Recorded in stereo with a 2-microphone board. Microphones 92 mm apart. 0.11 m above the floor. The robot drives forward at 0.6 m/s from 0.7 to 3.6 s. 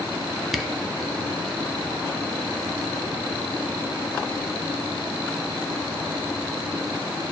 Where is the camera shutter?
5° right (ahead or behind), 0.6 m.